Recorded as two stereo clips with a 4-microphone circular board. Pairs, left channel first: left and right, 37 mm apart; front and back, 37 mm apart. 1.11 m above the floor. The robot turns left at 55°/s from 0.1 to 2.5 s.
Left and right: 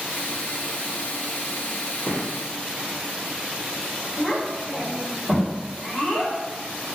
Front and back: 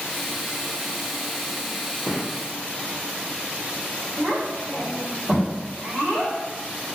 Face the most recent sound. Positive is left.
turn(degrees=140)